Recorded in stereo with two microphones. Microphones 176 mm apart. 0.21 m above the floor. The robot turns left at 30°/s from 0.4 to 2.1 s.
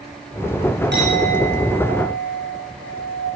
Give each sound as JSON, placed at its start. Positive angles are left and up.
{"t": 0.9, "sound": "a clink", "azimuth_deg": -80, "distance_m": 8.5}